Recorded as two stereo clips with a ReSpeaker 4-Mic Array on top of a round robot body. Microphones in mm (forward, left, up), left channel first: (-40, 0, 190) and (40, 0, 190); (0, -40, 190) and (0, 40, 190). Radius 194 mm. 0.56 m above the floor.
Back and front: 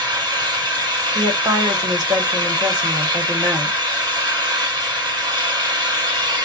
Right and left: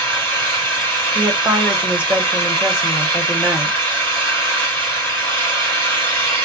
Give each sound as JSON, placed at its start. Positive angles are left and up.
{"t": 0.0, "sound": "an engine running", "azimuth_deg": -20, "distance_m": 1.7}
{"t": 1.1, "sound": "a woman speaking", "azimuth_deg": 20, "distance_m": 1.5}